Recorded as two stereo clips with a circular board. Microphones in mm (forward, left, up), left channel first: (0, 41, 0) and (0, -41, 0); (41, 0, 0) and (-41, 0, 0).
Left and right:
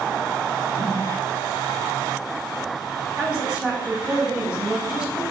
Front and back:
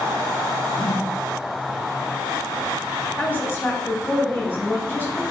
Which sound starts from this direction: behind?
A whoosh, at 0.8 s.